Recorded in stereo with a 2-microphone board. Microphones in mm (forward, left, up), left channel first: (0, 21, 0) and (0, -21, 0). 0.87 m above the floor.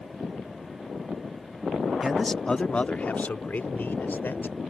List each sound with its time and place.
2.0 s a man speaking: centre (ahead or behind); by 4.6 s 65° left (ahead or behind)